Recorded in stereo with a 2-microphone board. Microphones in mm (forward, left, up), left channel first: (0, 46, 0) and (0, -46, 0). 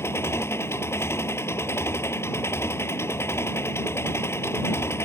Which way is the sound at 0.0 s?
30° left (ahead or behind).